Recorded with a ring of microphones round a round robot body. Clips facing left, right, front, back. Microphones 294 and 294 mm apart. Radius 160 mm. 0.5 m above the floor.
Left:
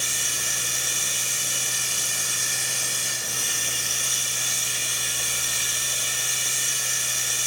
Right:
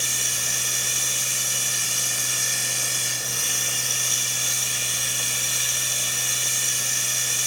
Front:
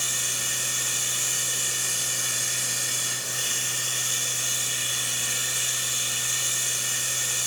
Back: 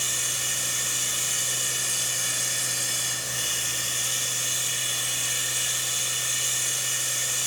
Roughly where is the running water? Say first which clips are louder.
Right 1 dB, even; ahead right.